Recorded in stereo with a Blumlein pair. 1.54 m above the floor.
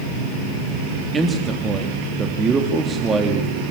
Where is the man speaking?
15° right, 3 m.